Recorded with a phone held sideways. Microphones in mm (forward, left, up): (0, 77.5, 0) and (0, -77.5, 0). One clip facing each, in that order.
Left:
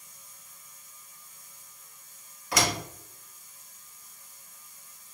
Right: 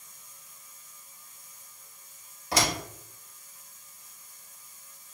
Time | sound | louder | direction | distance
2.5 | a door slam | even | 30° right (ahead or behind) | 1.5 m